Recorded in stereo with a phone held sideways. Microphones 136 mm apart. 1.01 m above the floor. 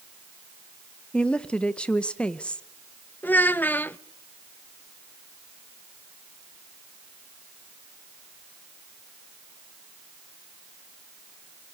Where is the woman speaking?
5° left (ahead or behind), 0.9 m.